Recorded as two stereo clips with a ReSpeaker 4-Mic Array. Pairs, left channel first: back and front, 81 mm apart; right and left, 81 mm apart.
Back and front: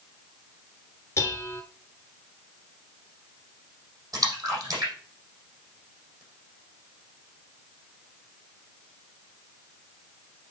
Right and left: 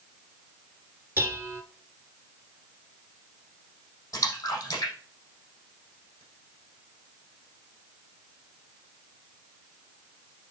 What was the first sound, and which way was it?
Dishes clattering, 140° left.